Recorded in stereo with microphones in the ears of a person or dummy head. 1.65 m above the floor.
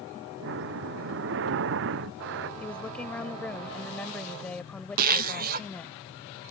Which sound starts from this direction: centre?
A woman speaking, at 2.6 s.